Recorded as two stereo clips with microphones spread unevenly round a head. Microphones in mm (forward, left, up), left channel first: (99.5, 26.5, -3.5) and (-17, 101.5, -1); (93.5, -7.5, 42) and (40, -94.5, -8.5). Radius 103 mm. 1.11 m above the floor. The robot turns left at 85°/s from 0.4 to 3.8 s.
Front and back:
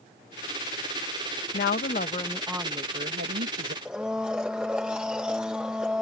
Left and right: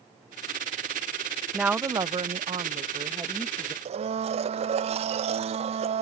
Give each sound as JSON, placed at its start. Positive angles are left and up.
{"t": 1.5, "sound": "a woman speaking", "azimuth_deg": -45}
{"t": 3.9, "sound": "a blender", "azimuth_deg": -125}